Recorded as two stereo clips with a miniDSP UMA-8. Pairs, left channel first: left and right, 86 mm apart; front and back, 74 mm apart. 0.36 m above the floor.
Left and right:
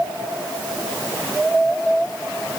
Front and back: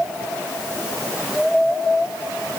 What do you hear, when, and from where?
Only background noise.